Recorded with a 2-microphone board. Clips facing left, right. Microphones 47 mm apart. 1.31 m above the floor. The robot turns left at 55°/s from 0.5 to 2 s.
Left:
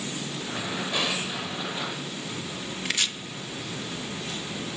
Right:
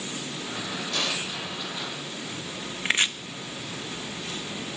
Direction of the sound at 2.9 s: 35° right (ahead or behind).